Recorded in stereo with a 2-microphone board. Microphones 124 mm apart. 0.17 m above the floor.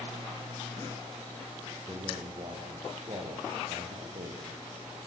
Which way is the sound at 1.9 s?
30° right (ahead or behind).